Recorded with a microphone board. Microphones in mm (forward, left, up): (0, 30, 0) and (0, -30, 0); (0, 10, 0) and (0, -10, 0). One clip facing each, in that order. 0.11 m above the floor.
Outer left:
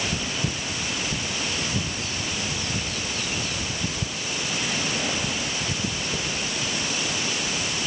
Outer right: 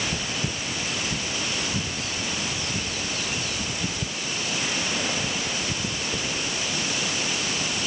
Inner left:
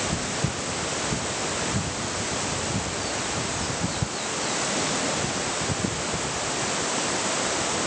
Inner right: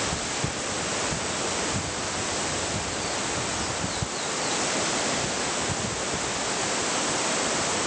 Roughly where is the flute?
No flute in this recording.